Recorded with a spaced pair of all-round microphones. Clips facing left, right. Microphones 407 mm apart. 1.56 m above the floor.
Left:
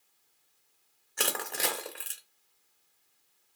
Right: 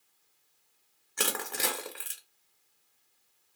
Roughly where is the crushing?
Centre.